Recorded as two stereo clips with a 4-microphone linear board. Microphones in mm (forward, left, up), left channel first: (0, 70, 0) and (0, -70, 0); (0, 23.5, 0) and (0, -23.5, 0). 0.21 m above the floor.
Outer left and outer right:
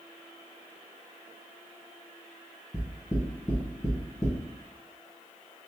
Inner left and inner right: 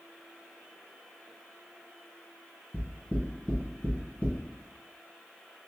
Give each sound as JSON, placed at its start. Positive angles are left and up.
{"t": 2.7, "sound": "knocking", "side_deg": 25, "distance_m": 1.5}